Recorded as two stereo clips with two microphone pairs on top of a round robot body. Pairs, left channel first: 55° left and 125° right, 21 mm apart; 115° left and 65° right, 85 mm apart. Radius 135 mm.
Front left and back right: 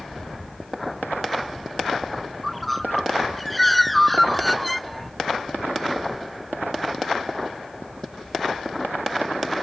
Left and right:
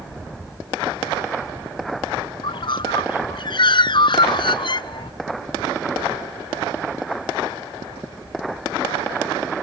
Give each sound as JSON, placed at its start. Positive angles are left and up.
{"t": 2.4, "sound": "a bird", "azimuth_deg": 140}